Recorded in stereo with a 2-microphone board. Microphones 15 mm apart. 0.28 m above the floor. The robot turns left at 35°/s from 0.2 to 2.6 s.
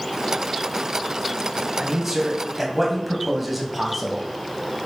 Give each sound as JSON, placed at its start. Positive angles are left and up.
{"t": 1.8, "sound": "a man speaking", "side_deg": -30, "distance_m": 2.0}